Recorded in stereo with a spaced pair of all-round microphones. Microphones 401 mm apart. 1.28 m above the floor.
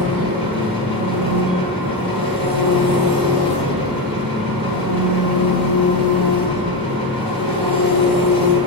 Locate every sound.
0.0 s an engine running: 65° right (ahead or behind), 3 m